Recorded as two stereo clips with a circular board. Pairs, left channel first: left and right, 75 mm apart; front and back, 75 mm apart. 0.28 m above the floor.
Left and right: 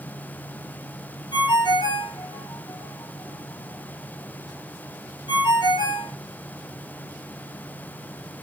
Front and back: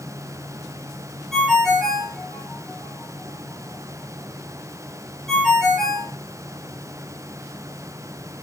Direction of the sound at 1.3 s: 85° left.